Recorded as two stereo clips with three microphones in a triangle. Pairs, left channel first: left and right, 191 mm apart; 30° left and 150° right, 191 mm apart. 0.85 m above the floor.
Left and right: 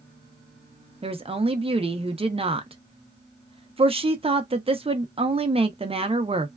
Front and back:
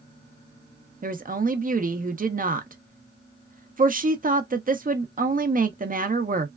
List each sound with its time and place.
1.0 s a woman speaking: 140° right, 0.5 m